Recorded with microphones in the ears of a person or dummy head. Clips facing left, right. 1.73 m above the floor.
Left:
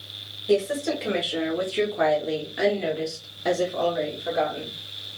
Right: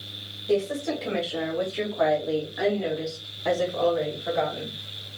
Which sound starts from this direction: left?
A woman speaking, at 0.5 s.